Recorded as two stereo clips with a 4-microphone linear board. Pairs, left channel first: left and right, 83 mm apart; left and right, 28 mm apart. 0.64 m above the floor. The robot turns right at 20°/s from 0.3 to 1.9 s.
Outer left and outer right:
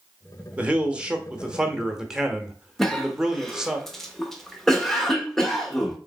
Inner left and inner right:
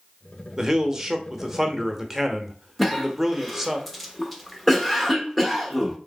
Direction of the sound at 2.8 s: 5° left (ahead or behind).